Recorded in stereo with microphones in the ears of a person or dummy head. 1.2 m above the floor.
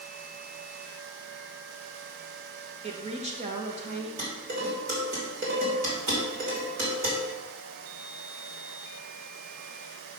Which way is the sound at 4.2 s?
50° right (ahead or behind).